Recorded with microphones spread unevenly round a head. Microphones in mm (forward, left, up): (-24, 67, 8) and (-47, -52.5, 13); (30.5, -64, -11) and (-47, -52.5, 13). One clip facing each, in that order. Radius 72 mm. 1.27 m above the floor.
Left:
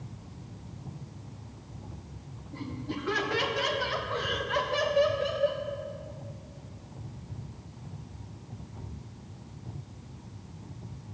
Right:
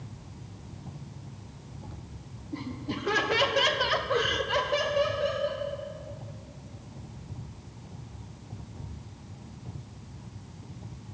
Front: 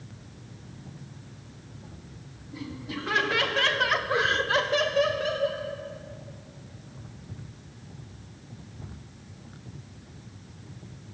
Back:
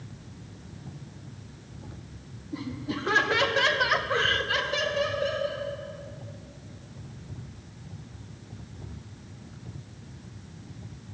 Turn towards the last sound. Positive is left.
turn(degrees=5)